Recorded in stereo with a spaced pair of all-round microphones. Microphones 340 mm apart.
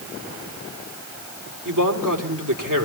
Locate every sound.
1.6 s a man speaking: 65° right (ahead or behind), 3.5 m